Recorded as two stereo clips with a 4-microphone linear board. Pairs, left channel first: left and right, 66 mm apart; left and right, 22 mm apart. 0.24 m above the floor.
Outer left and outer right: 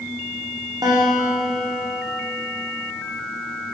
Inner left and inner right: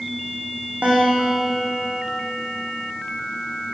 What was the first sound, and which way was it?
A guitar, 85° right.